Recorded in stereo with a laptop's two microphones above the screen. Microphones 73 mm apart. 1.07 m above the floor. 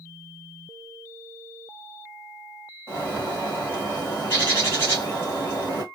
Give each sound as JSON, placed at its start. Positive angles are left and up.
{"t": 2.9, "sound": "a bird", "side_deg": 30, "distance_m": 2.0}